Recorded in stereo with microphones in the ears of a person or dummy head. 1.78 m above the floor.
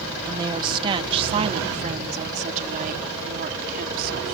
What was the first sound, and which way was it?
A woman speaking, 20° right (ahead or behind).